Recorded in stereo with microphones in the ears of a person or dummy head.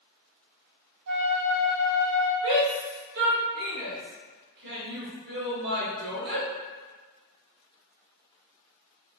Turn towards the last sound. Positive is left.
turn(degrees=-60)  # may be behind; listen again after turning